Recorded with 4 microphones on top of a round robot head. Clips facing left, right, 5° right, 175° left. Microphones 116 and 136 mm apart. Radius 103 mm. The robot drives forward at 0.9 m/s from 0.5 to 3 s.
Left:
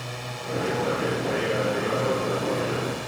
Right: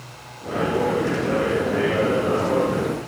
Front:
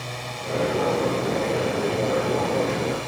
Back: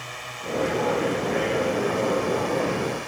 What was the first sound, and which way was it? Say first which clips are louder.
A drone: left 2 dB, front 3 dB; 55° left.